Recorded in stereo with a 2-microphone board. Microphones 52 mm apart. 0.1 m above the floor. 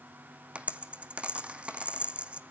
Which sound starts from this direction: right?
A dropped coin, at 0.6 s.